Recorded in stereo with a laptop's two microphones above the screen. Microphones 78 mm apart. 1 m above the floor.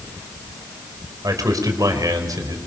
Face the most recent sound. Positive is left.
turn(degrees=-50)  # may be behind; listen again after turning